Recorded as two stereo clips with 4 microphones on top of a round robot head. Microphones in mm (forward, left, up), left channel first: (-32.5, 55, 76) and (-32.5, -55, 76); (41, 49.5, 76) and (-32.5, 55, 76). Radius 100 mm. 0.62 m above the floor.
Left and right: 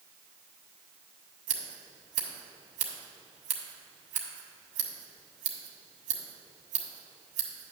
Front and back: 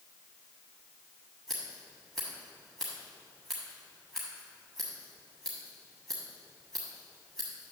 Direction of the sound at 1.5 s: 90° right.